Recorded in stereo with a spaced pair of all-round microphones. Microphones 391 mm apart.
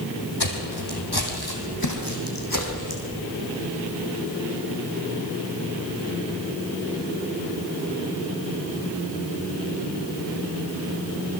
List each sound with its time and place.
0.4 s footsteps: 70° left (ahead or behind), 3.5 m; by 3.0 s 45° left (ahead or behind), 4.5 m